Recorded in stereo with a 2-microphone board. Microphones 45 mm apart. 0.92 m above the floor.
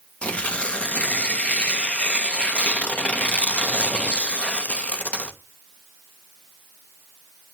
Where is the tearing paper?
30° left (ahead or behind), 0.8 m.